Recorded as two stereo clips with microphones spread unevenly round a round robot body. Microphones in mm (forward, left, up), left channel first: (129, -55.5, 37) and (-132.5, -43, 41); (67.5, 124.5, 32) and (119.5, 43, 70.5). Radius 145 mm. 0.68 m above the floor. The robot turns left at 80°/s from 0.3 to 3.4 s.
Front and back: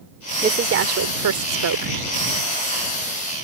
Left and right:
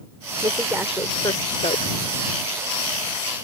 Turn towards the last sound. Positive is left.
turn(degrees=5)